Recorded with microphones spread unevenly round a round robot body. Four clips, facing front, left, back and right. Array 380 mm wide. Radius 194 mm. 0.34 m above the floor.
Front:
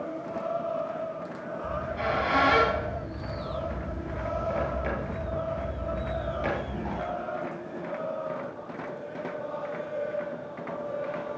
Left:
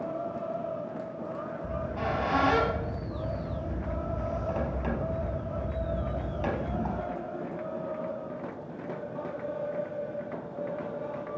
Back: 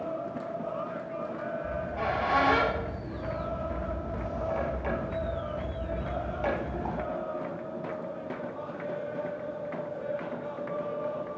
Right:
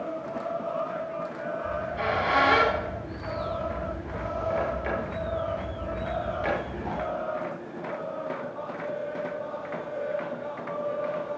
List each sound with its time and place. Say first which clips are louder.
1.6 s a squeak: right 3 dB, front 3 dB; 75° left, 3.5 m